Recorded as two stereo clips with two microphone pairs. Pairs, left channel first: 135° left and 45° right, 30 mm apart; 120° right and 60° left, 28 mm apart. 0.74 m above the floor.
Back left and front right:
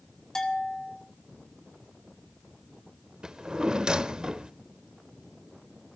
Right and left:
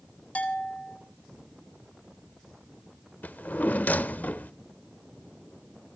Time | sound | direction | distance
0.3 | a bell | 155° right | 3 m
3.2 | a drawer | 110° right | 0.9 m